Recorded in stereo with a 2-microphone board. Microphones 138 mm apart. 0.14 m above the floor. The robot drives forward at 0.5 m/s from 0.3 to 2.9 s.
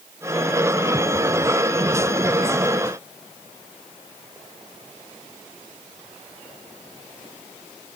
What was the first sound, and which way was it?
Only background noise.